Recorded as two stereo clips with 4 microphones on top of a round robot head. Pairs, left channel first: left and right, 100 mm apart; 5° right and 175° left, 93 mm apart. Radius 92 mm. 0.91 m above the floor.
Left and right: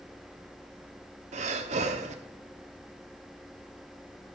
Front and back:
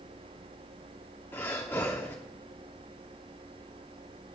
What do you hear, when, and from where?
1.3 s breathing: 80° right, 0.8 m